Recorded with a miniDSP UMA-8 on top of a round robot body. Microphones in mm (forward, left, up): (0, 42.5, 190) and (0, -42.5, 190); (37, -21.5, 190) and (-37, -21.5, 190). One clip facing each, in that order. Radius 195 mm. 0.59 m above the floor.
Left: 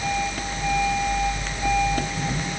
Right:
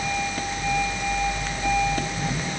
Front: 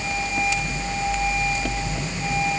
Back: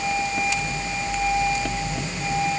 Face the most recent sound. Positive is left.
No sound to turn to.